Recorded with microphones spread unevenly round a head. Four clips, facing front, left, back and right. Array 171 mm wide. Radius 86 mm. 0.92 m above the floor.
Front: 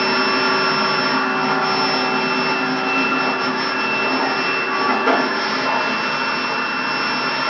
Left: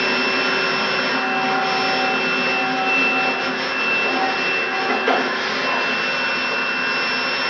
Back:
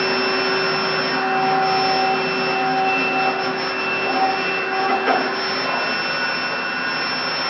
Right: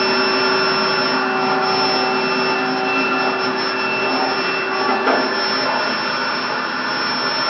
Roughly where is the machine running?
Ahead right.